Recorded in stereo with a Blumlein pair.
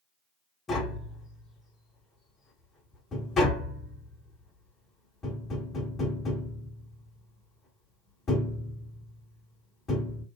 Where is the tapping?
20° left, 1.2 m.